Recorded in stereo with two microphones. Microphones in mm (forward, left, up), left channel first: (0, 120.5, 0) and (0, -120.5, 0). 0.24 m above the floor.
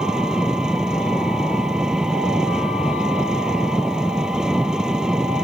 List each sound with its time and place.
0.0 s an engine running: 5° right (ahead or behind)